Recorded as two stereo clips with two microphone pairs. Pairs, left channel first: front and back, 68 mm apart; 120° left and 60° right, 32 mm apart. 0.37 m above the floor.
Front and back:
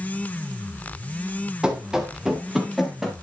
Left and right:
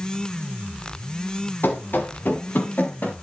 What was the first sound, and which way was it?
Running footsteps, 105° left.